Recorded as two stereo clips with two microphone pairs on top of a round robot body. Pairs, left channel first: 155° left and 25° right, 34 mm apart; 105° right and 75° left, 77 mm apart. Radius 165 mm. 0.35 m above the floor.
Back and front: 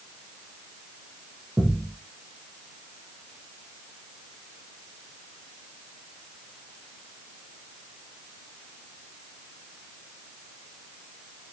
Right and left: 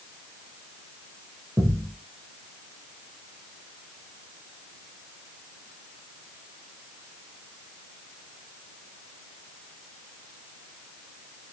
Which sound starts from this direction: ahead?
A thud, at 1.6 s.